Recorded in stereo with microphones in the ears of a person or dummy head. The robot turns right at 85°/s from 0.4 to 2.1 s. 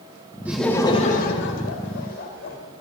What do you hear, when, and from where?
0.5 s laughter: 5° right, 1.4 m; by 2.6 s 135° left, 1.4 m